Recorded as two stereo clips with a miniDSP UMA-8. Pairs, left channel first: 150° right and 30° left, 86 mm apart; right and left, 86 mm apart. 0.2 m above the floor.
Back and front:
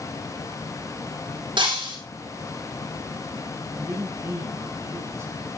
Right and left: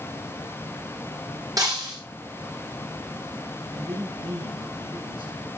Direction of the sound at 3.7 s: 85° left.